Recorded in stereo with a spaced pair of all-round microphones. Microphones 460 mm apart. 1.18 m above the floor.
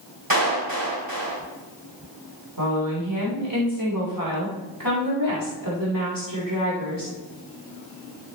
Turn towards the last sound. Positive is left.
turn(degrees=-45)  # may be behind; listen again after turning